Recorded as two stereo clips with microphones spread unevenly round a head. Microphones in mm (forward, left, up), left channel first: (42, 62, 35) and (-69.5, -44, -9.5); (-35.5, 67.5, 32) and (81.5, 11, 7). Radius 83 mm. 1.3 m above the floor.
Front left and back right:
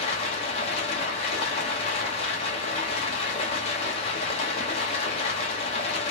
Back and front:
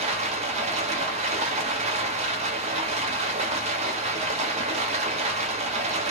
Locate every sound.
0.0 s running water: 10° left, 1.0 m